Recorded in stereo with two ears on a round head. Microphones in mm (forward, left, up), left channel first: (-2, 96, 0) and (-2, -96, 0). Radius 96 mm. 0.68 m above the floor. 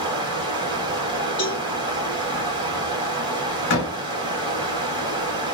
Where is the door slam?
60° left (ahead or behind), 1.4 m.